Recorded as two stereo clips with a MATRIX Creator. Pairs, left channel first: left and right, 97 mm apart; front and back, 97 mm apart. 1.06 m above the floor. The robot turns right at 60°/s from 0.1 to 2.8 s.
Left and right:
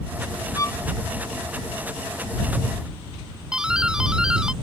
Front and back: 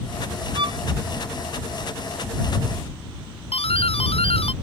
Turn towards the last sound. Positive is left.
turn(degrees=-10)